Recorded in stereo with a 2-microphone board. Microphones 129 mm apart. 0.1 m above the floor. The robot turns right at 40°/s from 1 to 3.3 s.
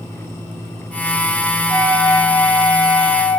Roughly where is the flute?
Right.